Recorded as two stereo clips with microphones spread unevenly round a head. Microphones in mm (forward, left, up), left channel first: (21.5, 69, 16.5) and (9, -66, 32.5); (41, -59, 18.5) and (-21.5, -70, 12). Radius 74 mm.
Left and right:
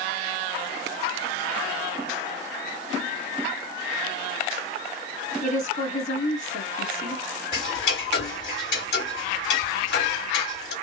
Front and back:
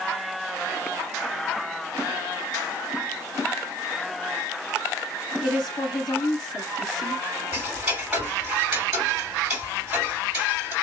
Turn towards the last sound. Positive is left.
turn(degrees=105)